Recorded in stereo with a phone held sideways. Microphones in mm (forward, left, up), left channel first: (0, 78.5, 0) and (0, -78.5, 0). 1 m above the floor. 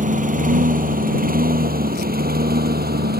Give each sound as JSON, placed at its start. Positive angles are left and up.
{"t": 0.0, "sound": "a lawn mower", "side_deg": -55}